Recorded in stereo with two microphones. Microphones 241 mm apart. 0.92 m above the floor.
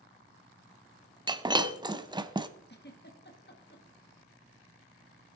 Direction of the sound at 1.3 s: 20° right (ahead or behind).